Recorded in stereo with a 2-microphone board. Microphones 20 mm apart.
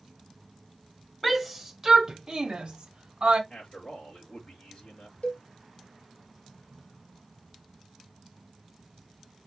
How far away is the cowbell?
About 1.4 m.